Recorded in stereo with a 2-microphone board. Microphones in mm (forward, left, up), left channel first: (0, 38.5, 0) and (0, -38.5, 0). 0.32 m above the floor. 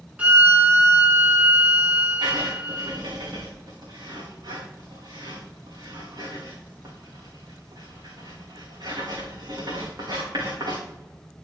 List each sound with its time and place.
0.2 s a violin: 20° right (ahead or behind), 2.5 m
2.2 s writing: 60° right (ahead or behind), 7 m